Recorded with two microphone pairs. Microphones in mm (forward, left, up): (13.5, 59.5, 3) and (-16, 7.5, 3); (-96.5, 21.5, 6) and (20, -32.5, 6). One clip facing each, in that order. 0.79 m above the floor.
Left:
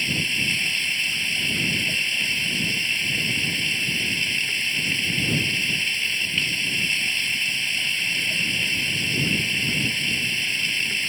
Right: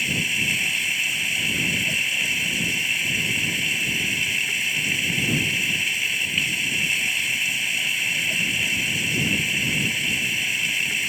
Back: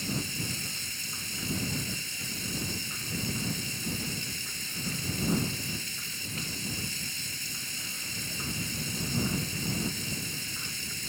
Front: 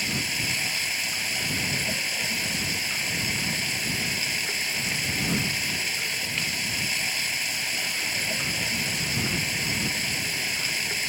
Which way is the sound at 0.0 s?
35° right.